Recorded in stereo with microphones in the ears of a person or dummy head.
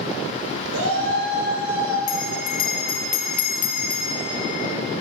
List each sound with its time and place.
0.7 s a shout: 85° right, 4.5 m
2.1 s a bell: 45° left (ahead or behind), 0.9 m